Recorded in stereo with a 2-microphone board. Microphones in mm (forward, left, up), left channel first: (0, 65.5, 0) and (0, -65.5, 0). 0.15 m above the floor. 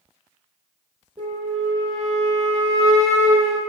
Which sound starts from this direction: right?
A flute, at 1.2 s.